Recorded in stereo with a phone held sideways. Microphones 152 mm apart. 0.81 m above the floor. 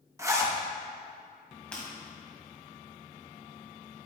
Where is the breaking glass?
10° left (ahead or behind), 2 m.